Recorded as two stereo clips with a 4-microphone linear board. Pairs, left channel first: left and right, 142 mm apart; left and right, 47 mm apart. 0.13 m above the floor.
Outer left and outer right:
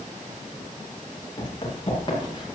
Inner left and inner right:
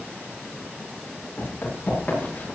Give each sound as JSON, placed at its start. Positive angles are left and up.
{"t": 1.4, "sound": "running footsteps", "side_deg": 35, "distance_m": 9.0}